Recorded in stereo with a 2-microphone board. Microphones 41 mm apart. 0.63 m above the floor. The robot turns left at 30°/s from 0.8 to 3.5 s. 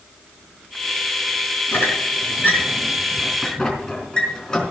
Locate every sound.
1.7 s a squeak: 75° left (ahead or behind), 4 m; by 4.7 s 20° left (ahead or behind), 4 m